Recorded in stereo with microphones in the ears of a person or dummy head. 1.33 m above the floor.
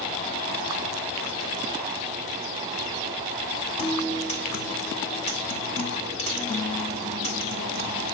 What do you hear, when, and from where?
3.8 s a guitar: 25° left (ahead or behind), 0.8 m